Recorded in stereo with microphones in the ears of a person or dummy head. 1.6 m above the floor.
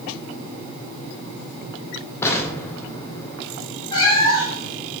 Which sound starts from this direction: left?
A cat meowing, at 3.9 s.